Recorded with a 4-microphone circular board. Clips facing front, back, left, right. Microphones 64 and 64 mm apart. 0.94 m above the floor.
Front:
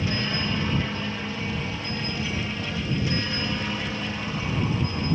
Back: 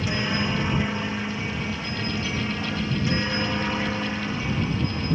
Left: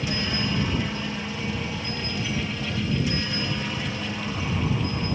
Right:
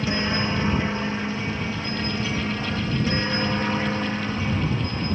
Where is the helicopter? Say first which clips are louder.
Back 2 dB, right 3 dB; 120° right; by 5.2 s 125° right.